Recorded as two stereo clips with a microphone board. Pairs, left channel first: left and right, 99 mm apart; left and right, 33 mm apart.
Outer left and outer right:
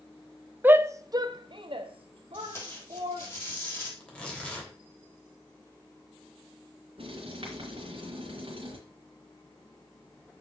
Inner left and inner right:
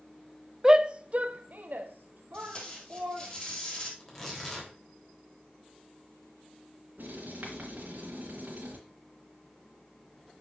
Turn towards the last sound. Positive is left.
turn(degrees=-70)  # may be behind; listen again after turning